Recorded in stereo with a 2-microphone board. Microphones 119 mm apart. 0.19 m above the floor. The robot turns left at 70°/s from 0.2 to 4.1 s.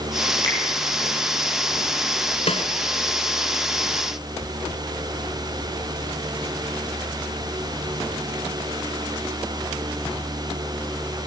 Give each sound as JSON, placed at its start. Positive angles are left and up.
{"t": 0.4, "sound": "a finger snap", "side_deg": 35, "distance_m": 4.5}
{"t": 2.5, "sound": "a snare drum", "side_deg": 60, "distance_m": 2.0}